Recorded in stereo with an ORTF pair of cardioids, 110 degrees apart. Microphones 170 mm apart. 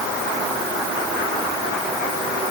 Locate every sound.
Only background noise.